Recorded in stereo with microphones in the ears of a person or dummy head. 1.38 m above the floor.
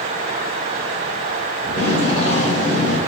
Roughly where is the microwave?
No microwave in this recording.